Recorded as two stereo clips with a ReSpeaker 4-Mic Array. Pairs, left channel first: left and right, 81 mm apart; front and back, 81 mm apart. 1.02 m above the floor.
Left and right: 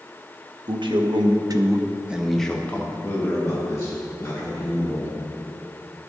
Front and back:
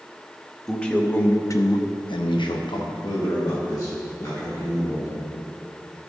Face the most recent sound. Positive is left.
turn(degrees=50)